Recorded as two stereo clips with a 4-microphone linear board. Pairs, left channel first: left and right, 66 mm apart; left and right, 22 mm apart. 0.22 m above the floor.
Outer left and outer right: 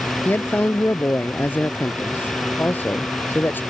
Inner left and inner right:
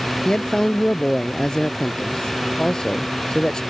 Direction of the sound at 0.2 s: 30° left (ahead or behind).